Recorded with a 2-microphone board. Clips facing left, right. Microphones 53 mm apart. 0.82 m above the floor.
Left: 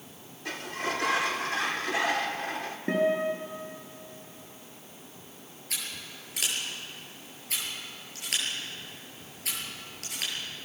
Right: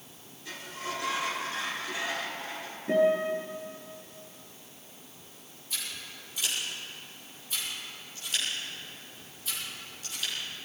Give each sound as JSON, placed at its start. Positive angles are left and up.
{"t": 0.5, "sound": "a sliding door", "side_deg": 75, "distance_m": 1.6}
{"t": 2.9, "sound": "a guitar", "side_deg": 55, "distance_m": 9.0}
{"t": 5.7, "sound": "scissors", "side_deg": 75, "distance_m": 8.0}